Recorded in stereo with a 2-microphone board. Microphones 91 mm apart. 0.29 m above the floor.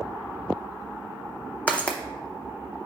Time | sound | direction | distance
1.7 | footsteps | 15° left (ahead or behind) | 0.6 m